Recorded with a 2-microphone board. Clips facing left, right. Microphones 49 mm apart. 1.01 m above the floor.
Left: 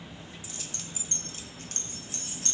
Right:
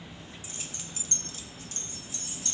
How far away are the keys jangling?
About 0.8 m.